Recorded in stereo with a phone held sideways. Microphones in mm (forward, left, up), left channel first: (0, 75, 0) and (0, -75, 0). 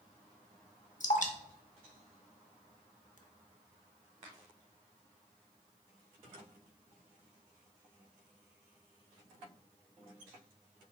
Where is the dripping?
55° left (ahead or behind), 0.6 m.